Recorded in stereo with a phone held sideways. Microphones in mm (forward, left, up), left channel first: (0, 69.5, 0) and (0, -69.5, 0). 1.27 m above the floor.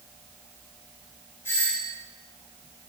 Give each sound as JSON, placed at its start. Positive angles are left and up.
{"t": 1.4, "sound": "a doorbell", "side_deg": 15, "distance_m": 3.0}